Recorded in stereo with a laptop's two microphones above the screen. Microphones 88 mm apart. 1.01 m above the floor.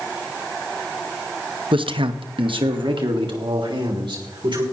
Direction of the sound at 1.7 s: 75° right (ahead or behind).